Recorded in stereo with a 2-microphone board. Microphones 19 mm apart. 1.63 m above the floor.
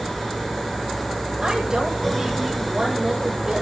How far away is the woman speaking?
About 9.5 m.